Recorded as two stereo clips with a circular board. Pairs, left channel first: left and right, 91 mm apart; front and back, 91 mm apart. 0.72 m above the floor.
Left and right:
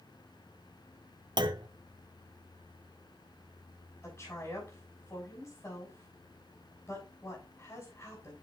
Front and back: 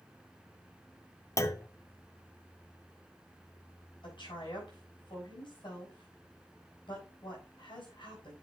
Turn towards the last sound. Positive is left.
turn(degrees=25)